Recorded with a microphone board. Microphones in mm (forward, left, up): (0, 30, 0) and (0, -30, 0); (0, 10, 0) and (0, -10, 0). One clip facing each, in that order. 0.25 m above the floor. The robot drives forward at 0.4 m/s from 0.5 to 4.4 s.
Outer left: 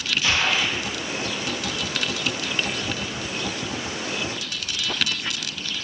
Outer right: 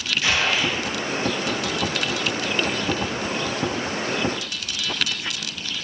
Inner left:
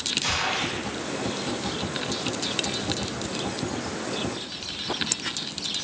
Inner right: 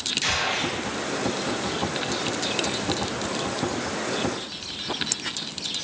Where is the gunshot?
65° right (ahead or behind), 2 m.